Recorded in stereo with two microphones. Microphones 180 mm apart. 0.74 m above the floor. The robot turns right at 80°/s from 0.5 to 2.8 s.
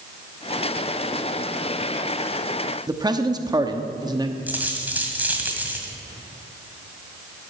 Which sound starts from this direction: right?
A man speaking, at 2.9 s.